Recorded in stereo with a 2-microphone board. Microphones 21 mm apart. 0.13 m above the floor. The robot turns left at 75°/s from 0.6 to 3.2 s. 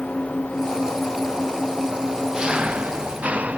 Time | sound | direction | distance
0.0 | an engine running | 95° left | ?